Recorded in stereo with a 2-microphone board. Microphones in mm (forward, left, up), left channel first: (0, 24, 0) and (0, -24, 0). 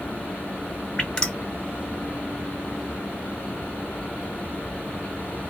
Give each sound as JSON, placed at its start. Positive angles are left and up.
{"t": 1.0, "sound": "dripping", "side_deg": 15, "distance_m": 0.7}